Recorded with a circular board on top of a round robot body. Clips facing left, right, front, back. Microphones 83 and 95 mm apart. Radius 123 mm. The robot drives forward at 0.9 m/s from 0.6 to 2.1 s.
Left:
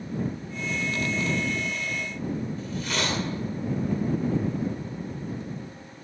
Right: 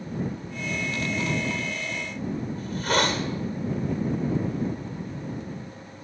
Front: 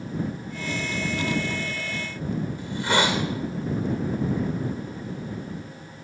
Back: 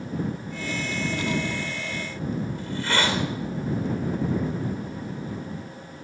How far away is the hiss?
About 1.9 m.